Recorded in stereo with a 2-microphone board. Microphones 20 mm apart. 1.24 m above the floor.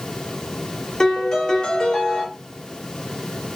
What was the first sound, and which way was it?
A piano, 40° left (ahead or behind).